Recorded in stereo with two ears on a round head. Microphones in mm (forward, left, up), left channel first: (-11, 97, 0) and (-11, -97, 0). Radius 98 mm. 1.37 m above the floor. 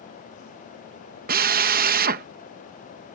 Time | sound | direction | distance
1.3 | a drill | 40° right (ahead or behind) | ?